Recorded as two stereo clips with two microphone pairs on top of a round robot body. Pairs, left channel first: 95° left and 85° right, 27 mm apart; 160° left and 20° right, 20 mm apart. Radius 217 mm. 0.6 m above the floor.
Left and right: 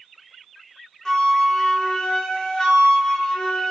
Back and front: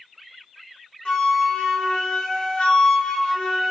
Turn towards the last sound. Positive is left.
turn(degrees=160)